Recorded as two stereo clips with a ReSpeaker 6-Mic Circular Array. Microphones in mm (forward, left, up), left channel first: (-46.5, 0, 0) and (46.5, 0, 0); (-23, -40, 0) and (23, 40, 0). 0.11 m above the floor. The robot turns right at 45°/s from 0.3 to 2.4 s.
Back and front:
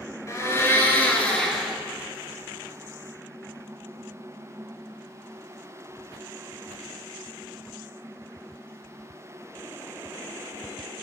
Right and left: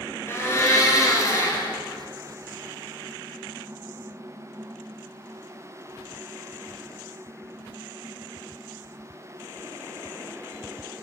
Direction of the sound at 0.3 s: 155° right.